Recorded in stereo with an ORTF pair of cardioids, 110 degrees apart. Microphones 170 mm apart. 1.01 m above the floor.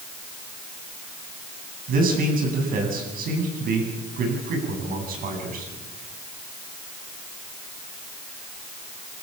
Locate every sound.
1.9 s a man speaking: 60° right, 9 m